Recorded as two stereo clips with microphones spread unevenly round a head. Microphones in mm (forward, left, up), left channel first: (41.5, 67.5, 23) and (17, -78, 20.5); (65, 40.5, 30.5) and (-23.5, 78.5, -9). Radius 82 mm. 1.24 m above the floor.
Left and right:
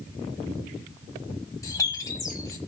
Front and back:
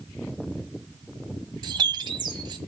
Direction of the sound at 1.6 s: 120° left.